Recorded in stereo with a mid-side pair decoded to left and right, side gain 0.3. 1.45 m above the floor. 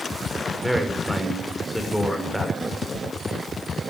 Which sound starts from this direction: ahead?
A man speaking, at 0.6 s.